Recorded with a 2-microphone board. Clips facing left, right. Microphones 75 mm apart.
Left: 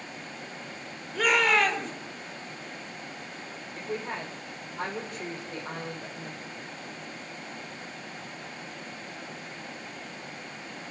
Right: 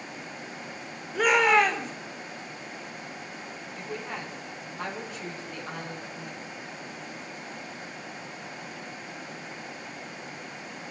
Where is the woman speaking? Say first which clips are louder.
Left 3 dB; 55° left (ahead or behind), 6.5 m.